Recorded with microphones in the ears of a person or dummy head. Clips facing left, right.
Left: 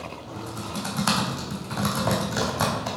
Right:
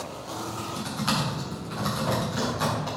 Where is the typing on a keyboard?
70° left (ahead or behind), 4 m.